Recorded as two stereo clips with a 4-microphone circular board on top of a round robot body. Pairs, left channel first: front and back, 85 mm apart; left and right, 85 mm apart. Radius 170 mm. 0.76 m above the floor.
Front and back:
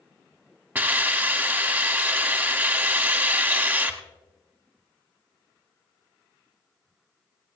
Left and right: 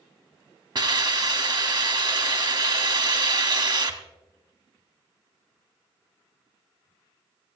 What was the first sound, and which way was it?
A hiss, 110° right.